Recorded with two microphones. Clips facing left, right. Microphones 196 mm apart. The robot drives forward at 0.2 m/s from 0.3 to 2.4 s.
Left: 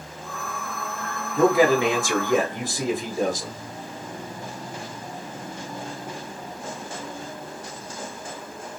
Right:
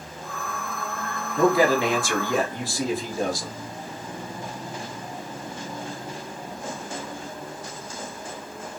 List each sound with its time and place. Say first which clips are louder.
1.4 s a man speaking: left 2 dB; 20° left (ahead or behind), 1.2 m